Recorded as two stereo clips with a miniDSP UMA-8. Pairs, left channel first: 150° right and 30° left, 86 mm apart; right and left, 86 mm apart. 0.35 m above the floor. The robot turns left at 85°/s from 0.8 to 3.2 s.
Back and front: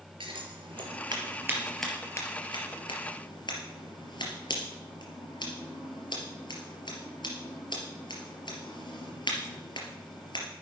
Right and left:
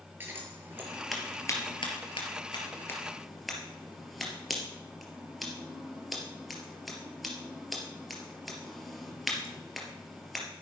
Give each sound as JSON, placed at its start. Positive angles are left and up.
{"t": 0.2, "sound": "scissors", "azimuth_deg": 25, "distance_m": 3.5}